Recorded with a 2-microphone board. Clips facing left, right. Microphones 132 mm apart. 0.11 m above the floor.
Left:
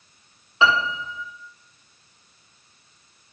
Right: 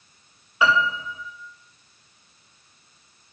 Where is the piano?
25° left (ahead or behind), 2 m.